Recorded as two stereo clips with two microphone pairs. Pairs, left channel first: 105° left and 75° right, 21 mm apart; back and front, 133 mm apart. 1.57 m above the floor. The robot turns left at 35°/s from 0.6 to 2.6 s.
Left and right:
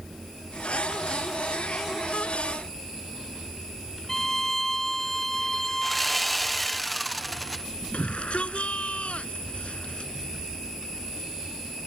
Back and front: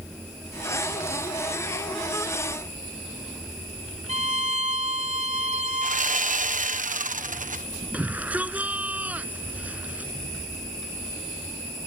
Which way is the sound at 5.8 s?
20° left.